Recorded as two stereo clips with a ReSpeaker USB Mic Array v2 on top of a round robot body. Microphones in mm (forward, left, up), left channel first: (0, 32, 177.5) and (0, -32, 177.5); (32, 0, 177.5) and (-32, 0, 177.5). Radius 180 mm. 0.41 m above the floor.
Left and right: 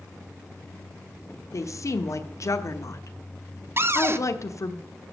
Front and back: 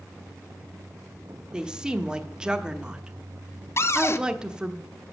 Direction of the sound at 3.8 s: 40° right.